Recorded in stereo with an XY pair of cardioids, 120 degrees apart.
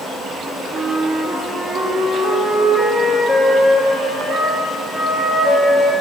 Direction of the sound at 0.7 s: 50° right.